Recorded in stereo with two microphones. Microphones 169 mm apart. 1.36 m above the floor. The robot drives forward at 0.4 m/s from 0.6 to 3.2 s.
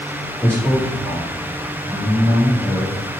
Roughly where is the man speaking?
Centre.